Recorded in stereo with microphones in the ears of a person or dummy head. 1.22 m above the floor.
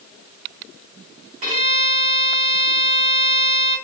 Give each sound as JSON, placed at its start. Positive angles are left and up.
{"t": 1.4, "sound": "a violin", "side_deg": -35, "distance_m": 1.9}